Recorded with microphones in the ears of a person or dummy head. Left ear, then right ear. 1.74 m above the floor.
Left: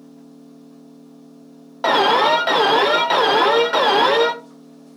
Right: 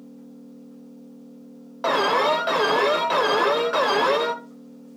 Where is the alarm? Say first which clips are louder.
Left 5 dB; 10° left (ahead or behind), 0.8 m.